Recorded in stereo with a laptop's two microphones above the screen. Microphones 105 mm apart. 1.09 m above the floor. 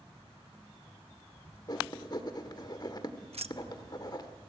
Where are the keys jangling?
75° right (ahead or behind), 0.7 m.